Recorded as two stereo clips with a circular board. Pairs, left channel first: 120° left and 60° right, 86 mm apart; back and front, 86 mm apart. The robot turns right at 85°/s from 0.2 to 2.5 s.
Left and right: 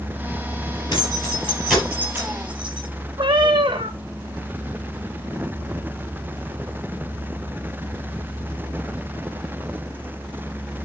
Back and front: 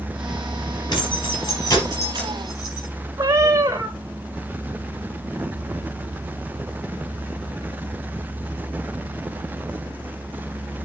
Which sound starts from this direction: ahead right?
A cat meowing, at 3.2 s.